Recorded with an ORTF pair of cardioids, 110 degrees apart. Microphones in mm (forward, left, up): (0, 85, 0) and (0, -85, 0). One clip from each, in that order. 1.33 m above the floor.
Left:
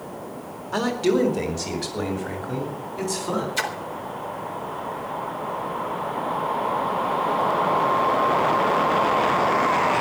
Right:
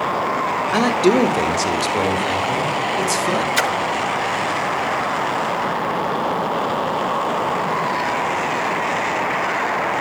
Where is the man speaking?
35° right, 2.0 m; by 3.5 s 45° right, 3.5 m.